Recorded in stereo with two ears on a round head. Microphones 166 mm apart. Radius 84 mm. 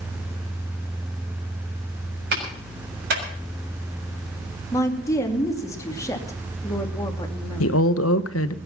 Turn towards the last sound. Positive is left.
turn(degrees=80)